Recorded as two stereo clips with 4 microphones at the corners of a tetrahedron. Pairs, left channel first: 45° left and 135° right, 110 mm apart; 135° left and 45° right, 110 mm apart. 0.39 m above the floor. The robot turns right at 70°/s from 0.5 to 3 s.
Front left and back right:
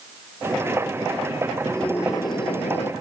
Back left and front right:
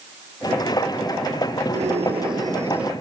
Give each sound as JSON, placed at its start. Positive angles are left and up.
{"t": 1.7, "sound": "a scream", "azimuth_deg": -45}